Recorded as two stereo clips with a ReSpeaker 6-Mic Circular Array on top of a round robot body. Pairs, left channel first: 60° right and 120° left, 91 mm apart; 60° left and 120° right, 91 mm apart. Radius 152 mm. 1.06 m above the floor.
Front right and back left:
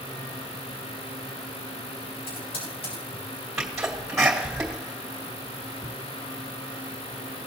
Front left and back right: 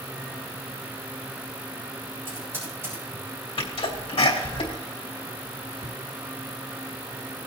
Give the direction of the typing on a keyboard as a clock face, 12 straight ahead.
2 o'clock.